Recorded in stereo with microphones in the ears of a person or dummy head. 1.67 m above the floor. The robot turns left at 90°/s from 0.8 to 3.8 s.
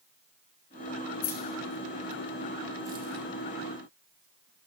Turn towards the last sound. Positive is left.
turn(degrees=-70)  # may be behind; listen again after turning